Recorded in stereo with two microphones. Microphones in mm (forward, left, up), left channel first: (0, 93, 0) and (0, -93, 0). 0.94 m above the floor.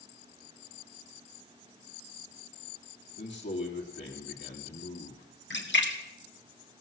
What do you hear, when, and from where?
3.2 s a man speaking: 65° left (ahead or behind), 2.5 m
5.5 s a splash: 75° left (ahead or behind), 2 m